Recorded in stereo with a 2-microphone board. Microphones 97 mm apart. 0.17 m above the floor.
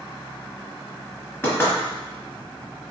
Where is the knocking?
25° left (ahead or behind), 1.4 m.